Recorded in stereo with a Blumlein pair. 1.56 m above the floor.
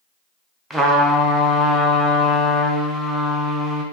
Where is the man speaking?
I don't hear a man speaking.